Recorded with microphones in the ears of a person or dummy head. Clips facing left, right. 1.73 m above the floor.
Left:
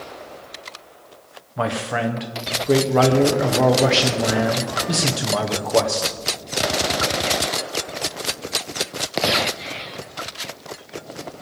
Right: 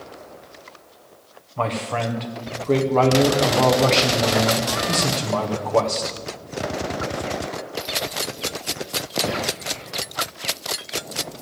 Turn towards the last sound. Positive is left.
turn(degrees=10)  # may be behind; listen again after turning